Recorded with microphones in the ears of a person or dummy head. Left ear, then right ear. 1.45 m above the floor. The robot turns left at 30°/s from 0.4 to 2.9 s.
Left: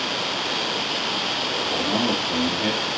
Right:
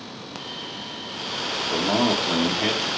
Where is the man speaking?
110° right, 1.3 m; by 2.9 s 145° right, 1.3 m.